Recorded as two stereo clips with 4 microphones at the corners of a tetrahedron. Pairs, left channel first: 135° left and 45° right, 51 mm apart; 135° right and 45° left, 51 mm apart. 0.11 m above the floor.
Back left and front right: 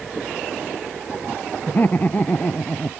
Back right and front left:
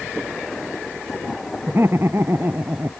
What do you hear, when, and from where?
1.7 s laughter: 80° left; by 2.9 s 75° left